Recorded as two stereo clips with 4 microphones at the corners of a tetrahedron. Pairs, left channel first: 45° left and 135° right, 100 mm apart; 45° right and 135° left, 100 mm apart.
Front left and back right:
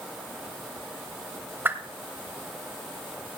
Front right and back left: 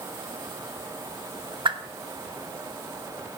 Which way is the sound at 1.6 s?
160° left.